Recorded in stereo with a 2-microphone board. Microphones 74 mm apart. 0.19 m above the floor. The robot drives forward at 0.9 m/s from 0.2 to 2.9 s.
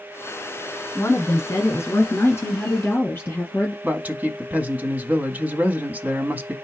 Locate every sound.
0.9 s a woman speaking: 40° left (ahead or behind), 2.0 m; by 3.7 s 30° left (ahead or behind), 2.5 m
3.8 s a man speaking: 20° right (ahead or behind), 1.0 m